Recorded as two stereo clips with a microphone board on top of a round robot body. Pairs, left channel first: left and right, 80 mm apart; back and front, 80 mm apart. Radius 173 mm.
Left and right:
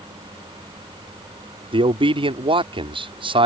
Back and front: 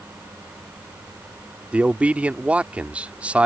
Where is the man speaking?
75° right.